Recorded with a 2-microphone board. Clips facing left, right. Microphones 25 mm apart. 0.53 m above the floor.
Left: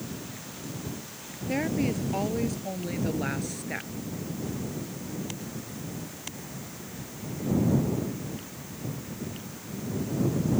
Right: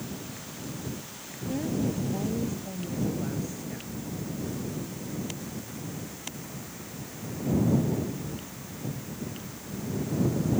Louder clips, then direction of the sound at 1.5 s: Left 2 dB; 85° left.